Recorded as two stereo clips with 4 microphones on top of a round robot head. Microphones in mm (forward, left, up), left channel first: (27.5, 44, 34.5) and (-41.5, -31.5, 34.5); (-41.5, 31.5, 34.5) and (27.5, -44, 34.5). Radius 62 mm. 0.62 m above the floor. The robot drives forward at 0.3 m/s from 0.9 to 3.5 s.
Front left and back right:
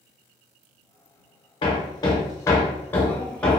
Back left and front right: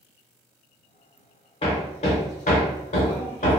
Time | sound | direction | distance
1.6 | hammering | 90° left | 0.7 m